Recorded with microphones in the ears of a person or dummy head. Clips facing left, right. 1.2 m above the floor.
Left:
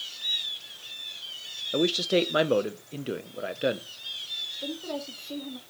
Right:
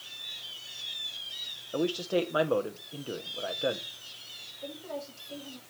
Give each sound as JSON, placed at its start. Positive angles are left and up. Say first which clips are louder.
{"t": 1.7, "sound": "a man speaking", "louder": "left 4 dB", "side_deg": 30, "distance_m": 0.5}
{"t": 4.6, "sound": "a woman speaking", "louder": "left 5 dB", "side_deg": 55, "distance_m": 2.5}